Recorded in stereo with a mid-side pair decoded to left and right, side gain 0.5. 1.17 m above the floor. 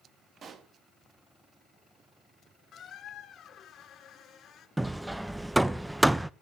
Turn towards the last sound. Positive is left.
turn(degrees=-10)